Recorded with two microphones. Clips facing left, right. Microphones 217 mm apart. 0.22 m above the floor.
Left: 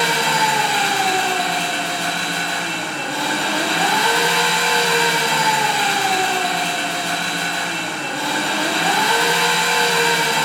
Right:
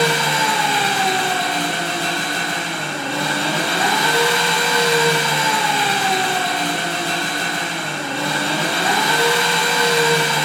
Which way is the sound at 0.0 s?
65° right (ahead or behind).